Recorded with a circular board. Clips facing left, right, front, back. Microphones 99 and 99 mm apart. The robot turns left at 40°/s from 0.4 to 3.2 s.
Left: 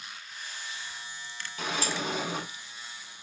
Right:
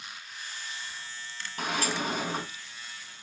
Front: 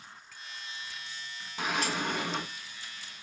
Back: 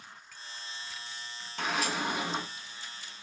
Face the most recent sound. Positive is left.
turn(degrees=-150)